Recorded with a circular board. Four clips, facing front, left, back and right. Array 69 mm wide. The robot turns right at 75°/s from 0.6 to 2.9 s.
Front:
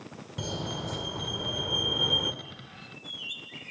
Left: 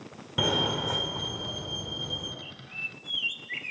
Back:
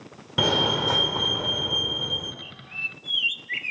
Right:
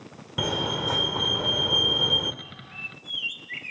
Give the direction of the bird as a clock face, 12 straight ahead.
7 o'clock.